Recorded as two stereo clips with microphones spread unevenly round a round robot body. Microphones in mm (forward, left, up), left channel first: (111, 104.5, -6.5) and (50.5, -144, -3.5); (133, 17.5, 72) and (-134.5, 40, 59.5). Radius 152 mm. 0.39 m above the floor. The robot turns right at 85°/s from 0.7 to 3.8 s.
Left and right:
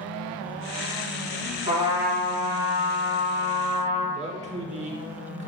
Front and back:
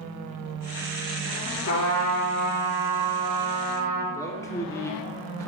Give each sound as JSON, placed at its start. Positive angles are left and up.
{"t": 1.7, "sound": "a trumpet", "azimuth_deg": -50, "distance_m": 3.0}
{"t": 4.1, "sound": "a man speaking", "azimuth_deg": -75, "distance_m": 1.1}